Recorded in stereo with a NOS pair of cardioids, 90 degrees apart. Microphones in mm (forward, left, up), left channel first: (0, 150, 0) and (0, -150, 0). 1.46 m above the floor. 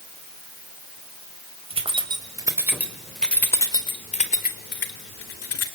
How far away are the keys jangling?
About 5 m.